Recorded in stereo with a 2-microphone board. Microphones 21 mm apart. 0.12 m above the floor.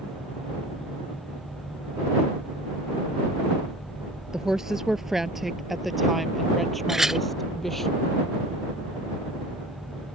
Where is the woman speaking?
20° right (ahead or behind); by 7.9 s 15° left (ahead or behind).